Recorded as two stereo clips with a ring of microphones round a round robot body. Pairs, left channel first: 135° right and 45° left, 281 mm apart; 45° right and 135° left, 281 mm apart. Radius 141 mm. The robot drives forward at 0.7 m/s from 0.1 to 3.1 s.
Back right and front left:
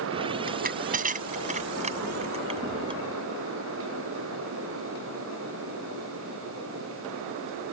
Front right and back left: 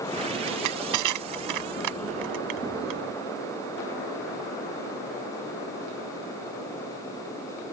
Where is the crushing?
105° left; by 3.0 s 120° left.